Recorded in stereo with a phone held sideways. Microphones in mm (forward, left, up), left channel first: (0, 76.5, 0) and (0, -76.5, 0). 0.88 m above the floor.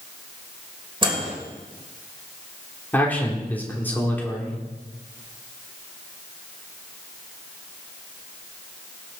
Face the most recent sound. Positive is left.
turn(degrees=10)  # may be behind; listen again after turning